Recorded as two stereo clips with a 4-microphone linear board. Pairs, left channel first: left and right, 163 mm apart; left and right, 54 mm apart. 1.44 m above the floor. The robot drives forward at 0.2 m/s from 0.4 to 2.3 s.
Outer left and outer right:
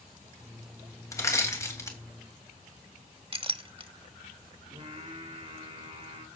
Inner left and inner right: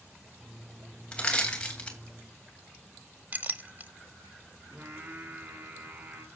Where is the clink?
35° right (ahead or behind), 0.8 m.